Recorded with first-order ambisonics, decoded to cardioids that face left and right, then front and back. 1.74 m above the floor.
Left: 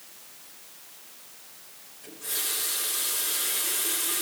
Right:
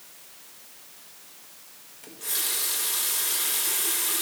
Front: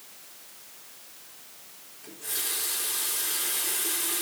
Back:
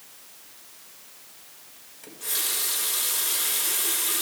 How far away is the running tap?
About 1.2 m.